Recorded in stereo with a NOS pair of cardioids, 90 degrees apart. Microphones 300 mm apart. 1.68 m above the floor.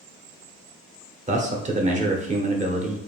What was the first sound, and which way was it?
A man speaking, 25° right.